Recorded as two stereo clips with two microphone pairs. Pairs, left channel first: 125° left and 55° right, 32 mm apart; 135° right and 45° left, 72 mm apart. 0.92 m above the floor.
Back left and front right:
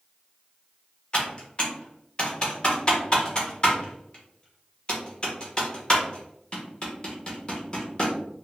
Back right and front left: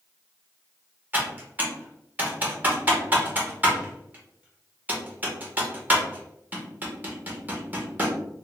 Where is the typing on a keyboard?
95° left, 0.9 m.